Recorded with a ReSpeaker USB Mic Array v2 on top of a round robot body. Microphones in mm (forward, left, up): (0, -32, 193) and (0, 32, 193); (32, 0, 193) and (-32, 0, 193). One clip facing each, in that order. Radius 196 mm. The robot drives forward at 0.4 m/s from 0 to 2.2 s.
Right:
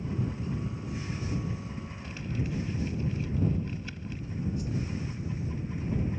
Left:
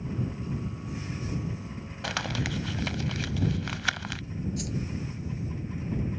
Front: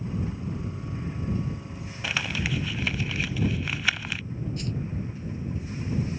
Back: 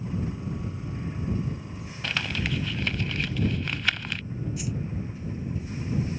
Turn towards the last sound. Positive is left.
turn(degrees=100)